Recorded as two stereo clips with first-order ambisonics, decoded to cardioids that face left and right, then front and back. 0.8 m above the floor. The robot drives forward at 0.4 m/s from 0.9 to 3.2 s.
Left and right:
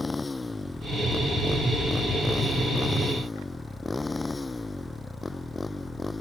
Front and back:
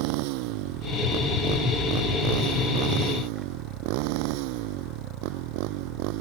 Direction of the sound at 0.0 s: 170° left.